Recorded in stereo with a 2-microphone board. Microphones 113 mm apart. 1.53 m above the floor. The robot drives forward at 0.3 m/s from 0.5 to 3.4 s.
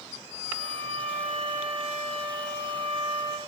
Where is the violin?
85° right, 1.0 m; by 3.4 s 50° right (ahead or behind), 1.3 m.